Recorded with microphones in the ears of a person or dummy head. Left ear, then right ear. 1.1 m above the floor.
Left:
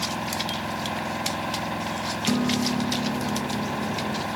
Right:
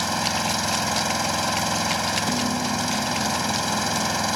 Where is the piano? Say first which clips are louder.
Right 1 dB; 65° left (ahead or behind).